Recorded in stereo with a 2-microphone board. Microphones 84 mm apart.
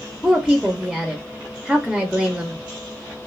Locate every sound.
0.2 s a woman speaking: centre (ahead or behind), 0.5 m